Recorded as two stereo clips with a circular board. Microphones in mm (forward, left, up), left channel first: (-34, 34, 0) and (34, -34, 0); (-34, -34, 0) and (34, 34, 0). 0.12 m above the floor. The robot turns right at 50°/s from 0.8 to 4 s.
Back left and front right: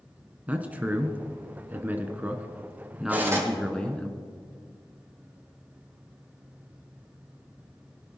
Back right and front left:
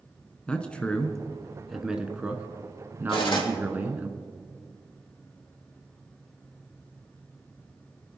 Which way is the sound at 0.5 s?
80° right.